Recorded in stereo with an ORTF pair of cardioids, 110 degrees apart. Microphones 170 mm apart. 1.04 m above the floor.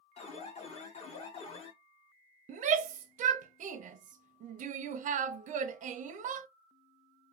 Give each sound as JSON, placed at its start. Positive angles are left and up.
{"t": 0.2, "sound": "an alarm", "azimuth_deg": 40, "distance_m": 1.0}
{"t": 2.5, "sound": "a shout", "azimuth_deg": -50, "distance_m": 0.5}